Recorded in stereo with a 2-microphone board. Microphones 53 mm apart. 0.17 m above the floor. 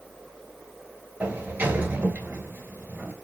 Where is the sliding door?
30° right (ahead or behind), 0.8 m.